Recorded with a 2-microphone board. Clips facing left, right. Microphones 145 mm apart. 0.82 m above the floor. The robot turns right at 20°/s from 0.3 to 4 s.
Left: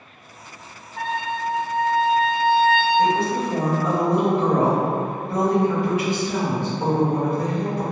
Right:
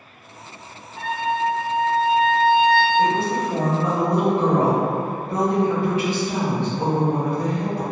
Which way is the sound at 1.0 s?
70° left.